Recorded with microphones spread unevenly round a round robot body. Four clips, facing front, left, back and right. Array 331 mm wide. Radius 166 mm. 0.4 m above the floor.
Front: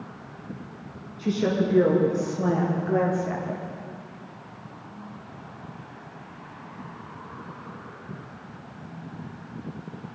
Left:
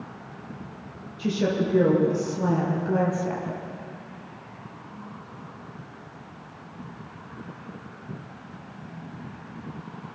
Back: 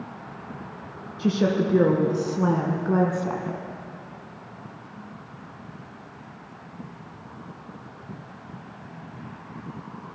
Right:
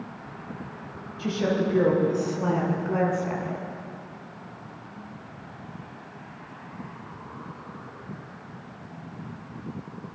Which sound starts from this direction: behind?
A woman speaking, at 1.2 s.